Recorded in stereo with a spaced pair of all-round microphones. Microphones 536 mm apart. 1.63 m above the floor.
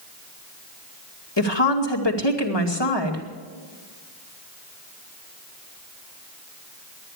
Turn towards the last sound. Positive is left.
turn(degrees=50)  # may be behind; listen again after turning